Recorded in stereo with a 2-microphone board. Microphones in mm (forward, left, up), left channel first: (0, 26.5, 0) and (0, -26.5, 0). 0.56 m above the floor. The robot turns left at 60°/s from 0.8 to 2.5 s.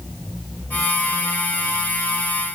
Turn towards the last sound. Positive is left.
No sound to turn to.